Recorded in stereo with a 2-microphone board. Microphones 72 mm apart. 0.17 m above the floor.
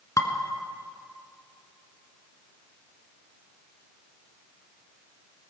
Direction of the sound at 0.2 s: 50° left (ahead or behind).